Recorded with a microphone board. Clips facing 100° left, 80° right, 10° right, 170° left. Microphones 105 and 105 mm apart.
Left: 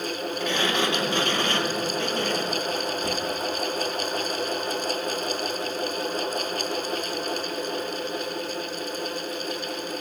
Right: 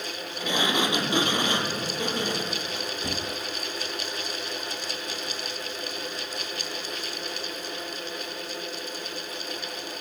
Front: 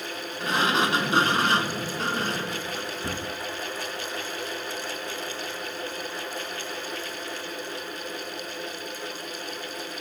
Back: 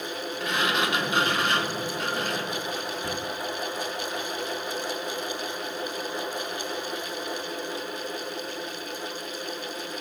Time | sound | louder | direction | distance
0.4 | a sliding door | even, front 3 dB | 20° right | 0.6 m